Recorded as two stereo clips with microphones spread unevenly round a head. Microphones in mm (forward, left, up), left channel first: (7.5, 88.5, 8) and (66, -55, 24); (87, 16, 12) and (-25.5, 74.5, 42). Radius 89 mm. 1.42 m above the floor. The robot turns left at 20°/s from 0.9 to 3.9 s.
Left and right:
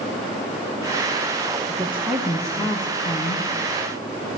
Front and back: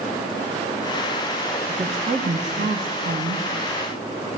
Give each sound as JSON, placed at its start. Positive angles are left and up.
{"t": 1.7, "sound": "a woman speaking", "azimuth_deg": -145, "distance_m": 1.9}